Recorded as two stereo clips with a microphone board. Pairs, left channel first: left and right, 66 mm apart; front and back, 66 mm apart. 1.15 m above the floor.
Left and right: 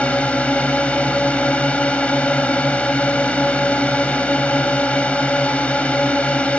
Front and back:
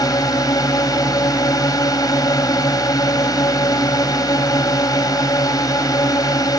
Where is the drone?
15° left.